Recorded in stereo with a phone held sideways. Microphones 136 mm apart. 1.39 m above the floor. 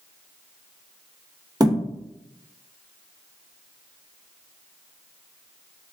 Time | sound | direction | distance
1.6 | a thud | 30° right (ahead or behind) | 0.7 m